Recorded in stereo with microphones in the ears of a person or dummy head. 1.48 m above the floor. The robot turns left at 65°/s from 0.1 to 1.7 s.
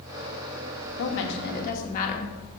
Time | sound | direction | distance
1.0 | a woman speaking | 95° left | 1.8 m